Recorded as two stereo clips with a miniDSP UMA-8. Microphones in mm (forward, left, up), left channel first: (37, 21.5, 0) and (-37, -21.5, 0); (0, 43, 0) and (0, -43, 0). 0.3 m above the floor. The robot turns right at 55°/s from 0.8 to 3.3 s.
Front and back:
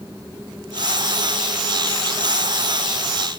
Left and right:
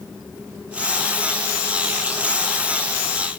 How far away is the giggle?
I don't hear a giggle.